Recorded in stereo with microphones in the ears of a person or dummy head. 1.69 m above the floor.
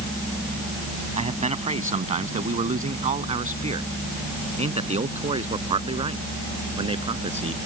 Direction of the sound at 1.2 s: 35° right (ahead or behind).